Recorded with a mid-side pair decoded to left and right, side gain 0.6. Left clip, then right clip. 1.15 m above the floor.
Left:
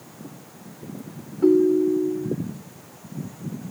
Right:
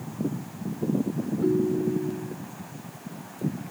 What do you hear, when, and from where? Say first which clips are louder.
1.4 s a ringtone: left 8 dB; 40° left